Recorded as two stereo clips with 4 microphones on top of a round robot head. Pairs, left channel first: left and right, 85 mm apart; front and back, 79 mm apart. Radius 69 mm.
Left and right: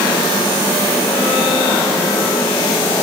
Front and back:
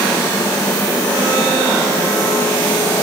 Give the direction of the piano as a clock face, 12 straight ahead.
I don't hear a piano.